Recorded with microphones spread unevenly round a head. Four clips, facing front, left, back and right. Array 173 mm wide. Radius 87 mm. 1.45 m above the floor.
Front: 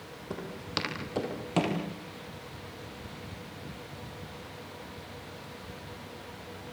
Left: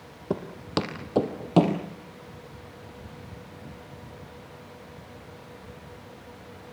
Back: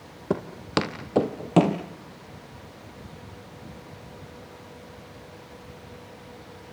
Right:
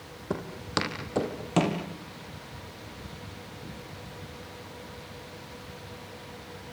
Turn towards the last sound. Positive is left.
turn(degrees=140)